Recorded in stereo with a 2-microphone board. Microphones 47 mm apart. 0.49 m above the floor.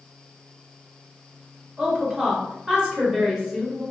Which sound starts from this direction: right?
A woman speaking, at 1.8 s.